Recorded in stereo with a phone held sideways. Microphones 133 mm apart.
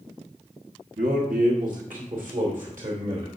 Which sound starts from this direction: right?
A man speaking, at 1.0 s.